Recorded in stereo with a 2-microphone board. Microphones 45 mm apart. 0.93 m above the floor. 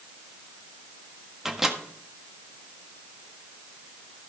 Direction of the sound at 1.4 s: 10° right (ahead or behind).